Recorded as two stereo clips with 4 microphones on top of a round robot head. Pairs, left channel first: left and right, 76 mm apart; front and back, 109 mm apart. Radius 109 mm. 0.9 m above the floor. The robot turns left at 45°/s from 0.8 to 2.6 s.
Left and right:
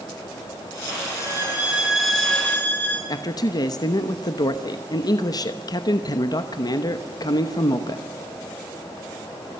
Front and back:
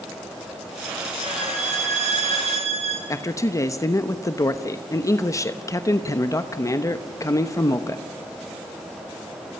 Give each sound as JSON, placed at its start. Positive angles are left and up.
{"t": 1.2, "sound": "a violin", "azimuth_deg": -140, "distance_m": 4.0}
{"t": 3.1, "sound": "a man speaking", "azimuth_deg": 60, "distance_m": 1.1}